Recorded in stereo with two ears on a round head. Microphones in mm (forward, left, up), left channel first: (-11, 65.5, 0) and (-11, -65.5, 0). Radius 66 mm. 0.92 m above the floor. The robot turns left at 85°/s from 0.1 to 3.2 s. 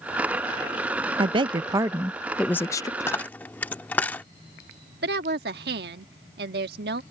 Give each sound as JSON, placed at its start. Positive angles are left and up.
{"t": 1.2, "sound": "a woman speaking", "azimuth_deg": -90}
{"t": 3.0, "sound": "a dropped coin", "side_deg": 20}
{"t": 5.0, "sound": "a woman speaking", "side_deg": -75}